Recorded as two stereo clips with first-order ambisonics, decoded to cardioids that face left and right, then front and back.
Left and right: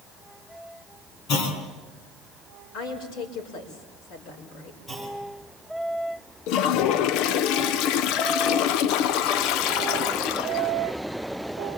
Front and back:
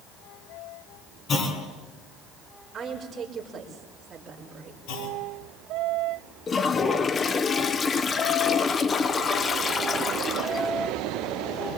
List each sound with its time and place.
1.3 s a clunk: 60° left, 4.5 m
2.7 s a woman speaking: 105° left, 5 m
4.9 s a clunk: 10° left, 6.5 m
6.5 s a toilet flushing: 70° left, 0.7 m